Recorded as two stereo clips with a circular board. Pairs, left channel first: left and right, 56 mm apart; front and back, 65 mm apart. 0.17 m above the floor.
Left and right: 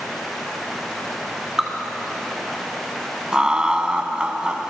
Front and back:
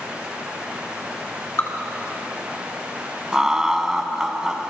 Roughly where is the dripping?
Ahead.